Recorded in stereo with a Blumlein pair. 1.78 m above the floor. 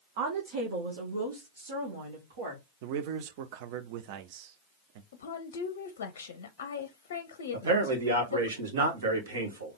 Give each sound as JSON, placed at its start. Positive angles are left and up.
{"t": 0.2, "sound": "a woman speaking", "azimuth_deg": -50, "distance_m": 0.9}
{"t": 2.8, "sound": "a man speaking", "azimuth_deg": -45, "distance_m": 0.7}
{"t": 5.1, "sound": "a woman speaking", "azimuth_deg": 60, "distance_m": 0.5}
{"t": 7.5, "sound": "a man speaking", "azimuth_deg": -65, "distance_m": 1.4}